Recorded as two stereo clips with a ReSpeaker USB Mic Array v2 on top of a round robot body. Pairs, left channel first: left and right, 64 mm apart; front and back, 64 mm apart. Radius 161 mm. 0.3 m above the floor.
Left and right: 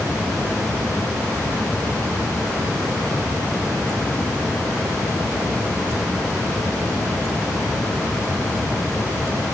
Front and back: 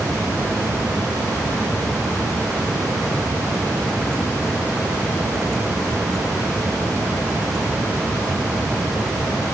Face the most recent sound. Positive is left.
No sound to turn to.